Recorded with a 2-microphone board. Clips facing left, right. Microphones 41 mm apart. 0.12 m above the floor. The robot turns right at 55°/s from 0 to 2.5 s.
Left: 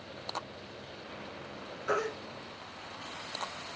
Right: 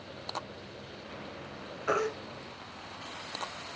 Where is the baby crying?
55° right (ahead or behind), 2.5 m; by 2.1 s 60° right (ahead or behind), 2.5 m.